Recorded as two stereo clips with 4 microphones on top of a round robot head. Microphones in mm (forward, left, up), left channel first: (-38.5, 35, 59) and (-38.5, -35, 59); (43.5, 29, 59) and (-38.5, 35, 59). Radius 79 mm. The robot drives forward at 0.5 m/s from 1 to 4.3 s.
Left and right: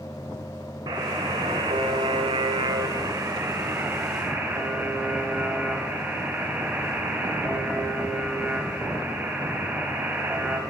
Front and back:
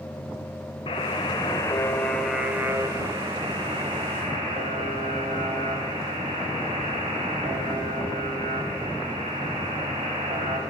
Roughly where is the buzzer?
Ahead right.